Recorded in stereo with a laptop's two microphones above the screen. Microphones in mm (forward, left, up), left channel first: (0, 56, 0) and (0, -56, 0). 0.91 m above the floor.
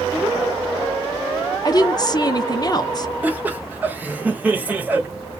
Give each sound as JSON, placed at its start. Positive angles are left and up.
{"t": 1.6, "sound": "a woman speaking", "side_deg": 35, "distance_m": 0.6}
{"t": 3.2, "sound": "laughter", "side_deg": -15, "distance_m": 0.6}